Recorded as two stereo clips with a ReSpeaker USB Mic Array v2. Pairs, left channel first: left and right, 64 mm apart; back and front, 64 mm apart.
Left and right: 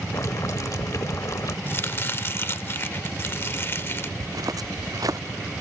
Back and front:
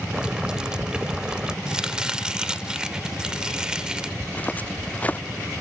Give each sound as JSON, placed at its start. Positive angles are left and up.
{"t": 0.1, "sound": "boiling", "azimuth_deg": 75}
{"t": 1.7, "sound": "chopping", "azimuth_deg": 70}
{"t": 4.2, "sound": "footsteps", "azimuth_deg": -115}